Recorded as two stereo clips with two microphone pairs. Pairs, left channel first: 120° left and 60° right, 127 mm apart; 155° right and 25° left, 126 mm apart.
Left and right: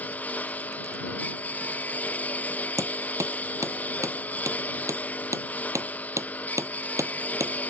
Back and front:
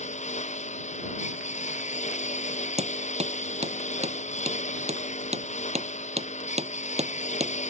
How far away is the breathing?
I don't hear breathing.